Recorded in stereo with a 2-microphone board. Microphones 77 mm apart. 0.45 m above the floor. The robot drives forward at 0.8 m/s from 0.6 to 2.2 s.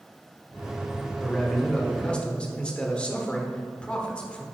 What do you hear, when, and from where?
1.2 s a man speaking: 10° left (ahead or behind), 1.9 m; by 4.4 s 15° left (ahead or behind), 1.3 m